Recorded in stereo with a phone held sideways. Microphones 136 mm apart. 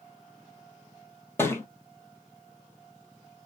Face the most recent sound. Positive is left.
turn(degrees=15)  # may be behind; listen again after turning